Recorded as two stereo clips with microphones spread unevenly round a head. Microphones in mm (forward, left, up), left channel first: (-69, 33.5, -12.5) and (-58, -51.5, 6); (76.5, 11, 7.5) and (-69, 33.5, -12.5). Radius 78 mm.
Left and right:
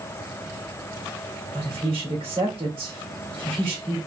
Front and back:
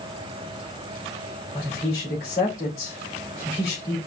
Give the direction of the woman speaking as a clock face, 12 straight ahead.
1 o'clock.